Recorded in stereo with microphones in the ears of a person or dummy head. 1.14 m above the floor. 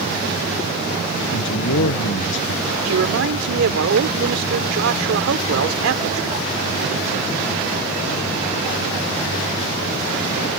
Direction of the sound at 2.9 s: 75° right (ahead or behind).